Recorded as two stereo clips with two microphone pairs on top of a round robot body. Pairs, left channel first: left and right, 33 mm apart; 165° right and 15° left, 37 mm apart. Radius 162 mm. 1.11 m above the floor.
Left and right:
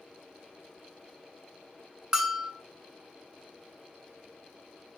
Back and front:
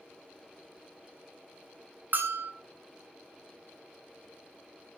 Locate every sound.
2.1 s a bell: 15° right, 0.9 m